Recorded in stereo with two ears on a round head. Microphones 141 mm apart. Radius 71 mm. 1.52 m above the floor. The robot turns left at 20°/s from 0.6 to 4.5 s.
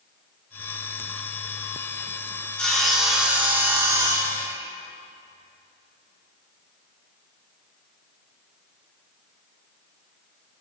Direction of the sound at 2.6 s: 5° left.